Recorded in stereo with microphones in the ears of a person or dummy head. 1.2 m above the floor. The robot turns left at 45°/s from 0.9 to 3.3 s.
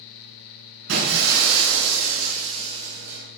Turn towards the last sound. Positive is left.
turn(degrees=180)